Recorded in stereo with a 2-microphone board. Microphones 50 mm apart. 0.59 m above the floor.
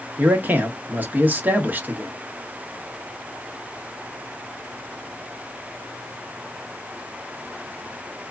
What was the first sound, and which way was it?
A man speaking, 35° right (ahead or behind).